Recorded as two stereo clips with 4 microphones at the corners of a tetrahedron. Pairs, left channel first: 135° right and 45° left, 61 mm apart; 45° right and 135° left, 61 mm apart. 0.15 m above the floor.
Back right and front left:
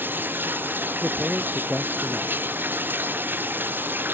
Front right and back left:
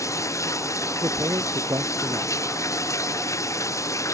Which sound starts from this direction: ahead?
Running water, at 0.0 s.